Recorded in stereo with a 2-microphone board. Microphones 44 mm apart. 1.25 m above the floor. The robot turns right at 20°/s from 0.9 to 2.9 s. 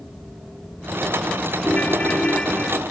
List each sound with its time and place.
1.6 s a ringtone: 35° left (ahead or behind); by 2.8 s 15° left (ahead or behind)